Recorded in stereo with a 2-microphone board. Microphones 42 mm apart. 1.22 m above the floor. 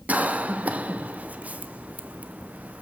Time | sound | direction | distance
0.1 | a cough | 40° right (ahead or behind) | 0.7 m